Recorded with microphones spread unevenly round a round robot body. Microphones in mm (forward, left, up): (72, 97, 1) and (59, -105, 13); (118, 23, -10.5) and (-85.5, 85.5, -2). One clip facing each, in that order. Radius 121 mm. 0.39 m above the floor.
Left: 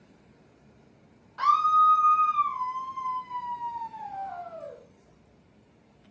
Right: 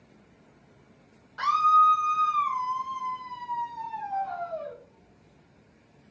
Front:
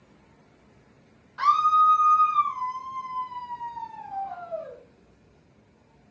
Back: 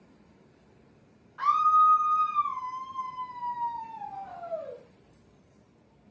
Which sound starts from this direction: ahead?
A scream, at 1.4 s.